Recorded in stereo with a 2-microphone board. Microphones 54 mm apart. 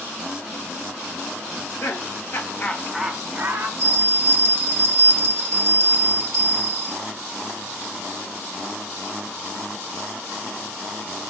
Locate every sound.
1.5 s laughter: 65° left (ahead or behind), 1.4 m; by 3.7 s 45° right (ahead or behind), 0.9 m
3.8 s a bell: 15° left (ahead or behind), 2.5 m